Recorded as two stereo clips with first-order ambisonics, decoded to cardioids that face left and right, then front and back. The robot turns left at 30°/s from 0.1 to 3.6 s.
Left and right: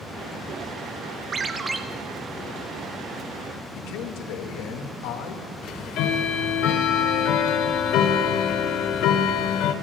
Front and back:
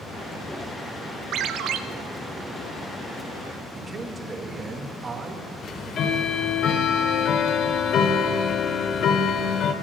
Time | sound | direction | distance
1.3 | a ringtone | 150° right | 1.0 m
3.8 | a man speaking | 110° left | 2 m
5.6 | ticking | 55° left | 1.4 m